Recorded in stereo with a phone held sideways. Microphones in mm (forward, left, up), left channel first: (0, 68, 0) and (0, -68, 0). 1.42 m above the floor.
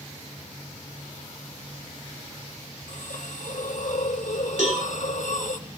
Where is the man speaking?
I don't hear a man speaking.